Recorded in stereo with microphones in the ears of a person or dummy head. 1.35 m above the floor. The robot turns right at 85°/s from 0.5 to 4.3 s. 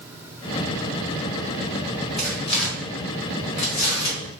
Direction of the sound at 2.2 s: Centre (ahead or behind).